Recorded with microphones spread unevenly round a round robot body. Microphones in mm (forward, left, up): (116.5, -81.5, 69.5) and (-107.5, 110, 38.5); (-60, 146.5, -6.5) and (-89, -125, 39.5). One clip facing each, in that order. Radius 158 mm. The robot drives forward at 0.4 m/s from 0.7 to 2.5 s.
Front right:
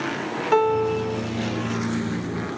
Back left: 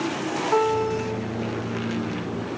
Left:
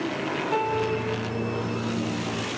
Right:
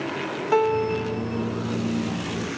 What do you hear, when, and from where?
0.5 s a piano: 65° right, 0.9 m; by 1.2 s 85° right, 0.8 m